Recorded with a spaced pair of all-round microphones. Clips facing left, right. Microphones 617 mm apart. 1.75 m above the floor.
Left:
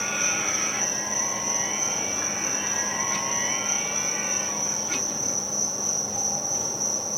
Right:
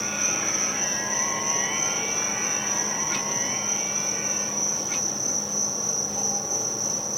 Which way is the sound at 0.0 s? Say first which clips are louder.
Right 1 dB; 80° right.